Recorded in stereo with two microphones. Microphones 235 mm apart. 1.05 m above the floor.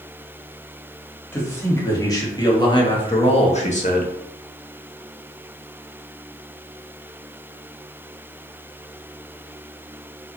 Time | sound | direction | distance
1.3 | a man speaking | 10° left (ahead or behind) | 2.5 m